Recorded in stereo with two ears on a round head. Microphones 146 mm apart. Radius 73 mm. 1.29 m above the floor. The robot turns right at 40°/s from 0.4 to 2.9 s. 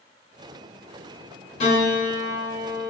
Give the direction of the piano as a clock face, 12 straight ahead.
8 o'clock.